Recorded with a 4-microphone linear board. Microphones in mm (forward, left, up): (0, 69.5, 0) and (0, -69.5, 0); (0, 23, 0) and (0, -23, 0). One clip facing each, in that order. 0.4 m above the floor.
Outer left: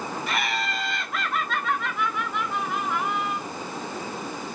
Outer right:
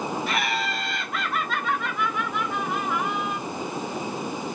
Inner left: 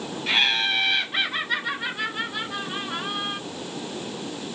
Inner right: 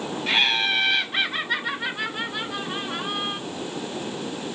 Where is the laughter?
Centre (ahead or behind), 1.2 m.